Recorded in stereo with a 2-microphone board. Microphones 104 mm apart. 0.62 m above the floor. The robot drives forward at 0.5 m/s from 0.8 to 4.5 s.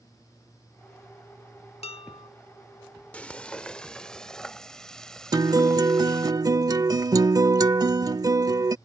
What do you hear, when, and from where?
1.8 s dishes clattering: 70° left (ahead or behind); by 2.3 s 65° left (ahead or behind)
3.1 s frying: 15° left (ahead or behind); by 6.3 s 5° left (ahead or behind)
5.3 s a guitar: 35° right (ahead or behind)